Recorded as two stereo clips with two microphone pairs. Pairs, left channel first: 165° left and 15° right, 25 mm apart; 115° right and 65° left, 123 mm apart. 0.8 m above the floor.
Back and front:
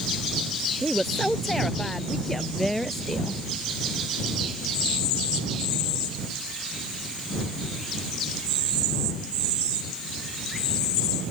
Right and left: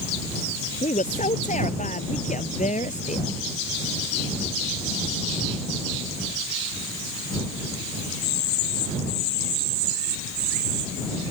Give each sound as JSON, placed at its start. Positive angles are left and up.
{"t": 0.8, "sound": "a woman speaking", "azimuth_deg": -115}